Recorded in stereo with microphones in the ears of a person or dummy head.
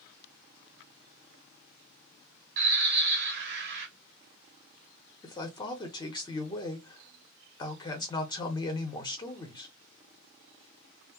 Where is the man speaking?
25° left (ahead or behind), 0.8 m.